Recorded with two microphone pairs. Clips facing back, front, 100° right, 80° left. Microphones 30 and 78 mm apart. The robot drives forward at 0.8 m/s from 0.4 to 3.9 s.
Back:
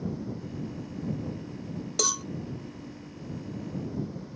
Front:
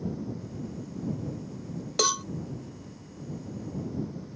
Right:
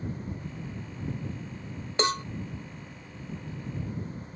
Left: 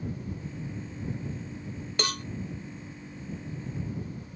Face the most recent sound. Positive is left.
turn(degrees=-155)